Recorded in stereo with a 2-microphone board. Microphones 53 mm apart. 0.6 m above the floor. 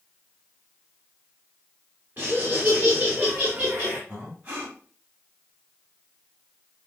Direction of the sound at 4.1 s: 30° right (ahead or behind).